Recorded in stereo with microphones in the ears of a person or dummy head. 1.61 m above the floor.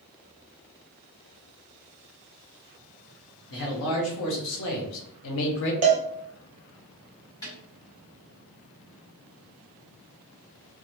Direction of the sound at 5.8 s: 35° right (ahead or behind).